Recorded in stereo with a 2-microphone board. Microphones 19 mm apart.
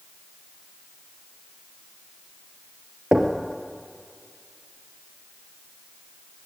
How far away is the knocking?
About 3 m.